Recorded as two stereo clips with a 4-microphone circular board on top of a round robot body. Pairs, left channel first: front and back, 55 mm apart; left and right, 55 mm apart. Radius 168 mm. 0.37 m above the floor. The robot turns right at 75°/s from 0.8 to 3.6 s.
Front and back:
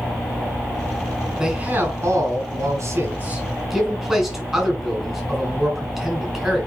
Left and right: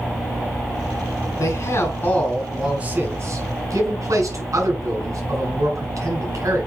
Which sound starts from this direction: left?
A man speaking, at 1.4 s.